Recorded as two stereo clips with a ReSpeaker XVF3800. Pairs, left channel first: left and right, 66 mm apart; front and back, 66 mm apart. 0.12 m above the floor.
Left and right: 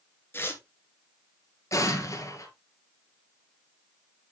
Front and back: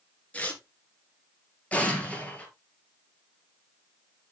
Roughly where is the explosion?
Left.